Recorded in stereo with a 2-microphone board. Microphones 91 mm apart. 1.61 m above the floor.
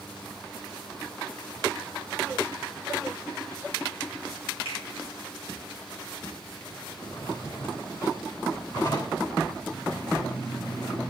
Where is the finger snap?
80° left, 6 m.